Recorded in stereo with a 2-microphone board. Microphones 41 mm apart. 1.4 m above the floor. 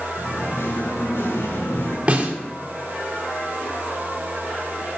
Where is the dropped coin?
No dropped coin in this recording.